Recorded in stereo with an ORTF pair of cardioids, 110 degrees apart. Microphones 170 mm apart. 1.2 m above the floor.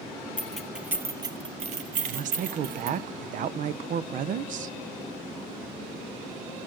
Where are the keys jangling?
10° left, 1.0 m; by 3.0 s 75° right, 1.3 m.